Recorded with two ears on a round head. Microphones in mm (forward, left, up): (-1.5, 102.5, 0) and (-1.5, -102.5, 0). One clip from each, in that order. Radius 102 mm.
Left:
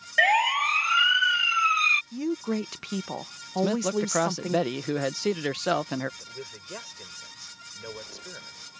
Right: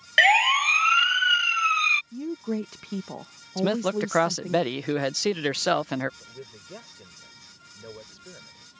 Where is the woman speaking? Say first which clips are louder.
Left 2 dB; 35° left (ahead or behind).